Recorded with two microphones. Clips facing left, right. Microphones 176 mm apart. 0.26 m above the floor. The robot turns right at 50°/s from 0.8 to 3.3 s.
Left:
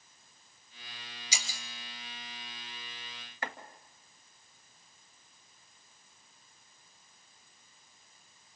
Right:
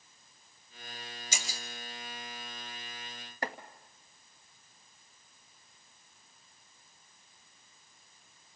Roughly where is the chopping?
Right.